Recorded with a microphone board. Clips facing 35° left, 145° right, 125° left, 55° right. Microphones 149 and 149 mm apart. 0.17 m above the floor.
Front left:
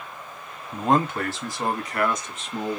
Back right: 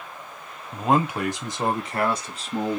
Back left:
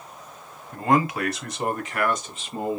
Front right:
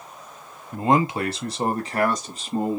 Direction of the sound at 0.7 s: 55° right.